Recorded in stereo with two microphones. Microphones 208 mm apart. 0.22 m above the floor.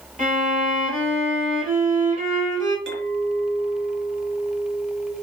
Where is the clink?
60° right (ahead or behind), 1.6 m.